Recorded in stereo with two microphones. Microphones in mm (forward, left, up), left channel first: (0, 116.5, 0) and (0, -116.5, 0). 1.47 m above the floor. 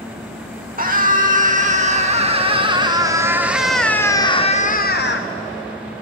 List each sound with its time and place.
0.8 s a scream: 35° right (ahead or behind), 2 m; by 5.3 s 55° left (ahead or behind), 0.8 m